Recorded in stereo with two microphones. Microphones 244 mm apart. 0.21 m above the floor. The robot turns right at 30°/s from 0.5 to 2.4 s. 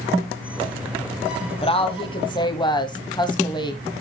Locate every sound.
1.6 s a woman speaking: 25° left (ahead or behind), 1.0 m; by 4.0 s 20° left (ahead or behind), 1.0 m